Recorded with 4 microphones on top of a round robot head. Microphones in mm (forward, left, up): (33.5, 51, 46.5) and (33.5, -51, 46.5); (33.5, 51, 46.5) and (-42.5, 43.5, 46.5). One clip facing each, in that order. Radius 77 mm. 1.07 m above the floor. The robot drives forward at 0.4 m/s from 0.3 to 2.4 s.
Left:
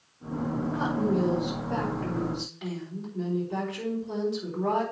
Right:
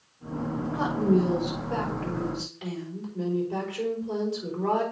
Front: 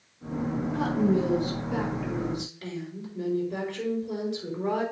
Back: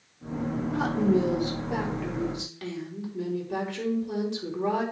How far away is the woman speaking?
About 3.5 m.